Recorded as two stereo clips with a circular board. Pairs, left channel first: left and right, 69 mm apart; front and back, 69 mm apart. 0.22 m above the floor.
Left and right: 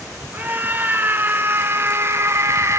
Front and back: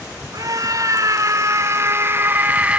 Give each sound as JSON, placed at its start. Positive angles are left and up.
{"t": 0.3, "sound": "a scream", "azimuth_deg": -150, "distance_m": 2.5}